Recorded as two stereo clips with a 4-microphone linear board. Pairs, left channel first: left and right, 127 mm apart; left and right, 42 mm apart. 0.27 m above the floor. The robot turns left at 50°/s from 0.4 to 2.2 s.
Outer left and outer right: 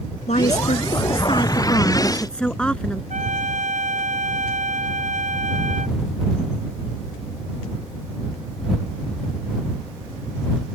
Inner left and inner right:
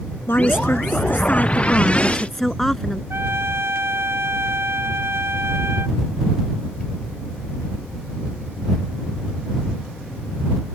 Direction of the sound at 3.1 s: 85° right.